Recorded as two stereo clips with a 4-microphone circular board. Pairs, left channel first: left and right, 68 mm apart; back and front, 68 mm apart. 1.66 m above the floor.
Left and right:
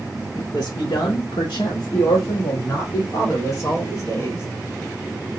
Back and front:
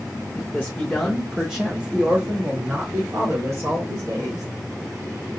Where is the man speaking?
125° left, 0.8 m; by 4.4 s 35° left, 1.9 m.